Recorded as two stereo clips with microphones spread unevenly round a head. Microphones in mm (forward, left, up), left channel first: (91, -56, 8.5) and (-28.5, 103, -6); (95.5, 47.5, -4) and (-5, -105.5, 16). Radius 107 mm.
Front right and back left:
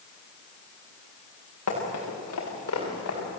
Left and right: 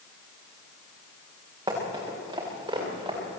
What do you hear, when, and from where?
1.7 s running footsteps: 60° right, 9 m